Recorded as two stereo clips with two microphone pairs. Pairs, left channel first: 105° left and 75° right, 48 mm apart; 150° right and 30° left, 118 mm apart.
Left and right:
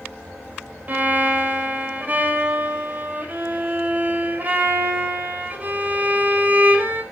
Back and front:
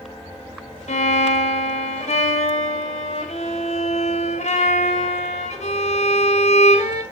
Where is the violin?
130° right, 1.8 m.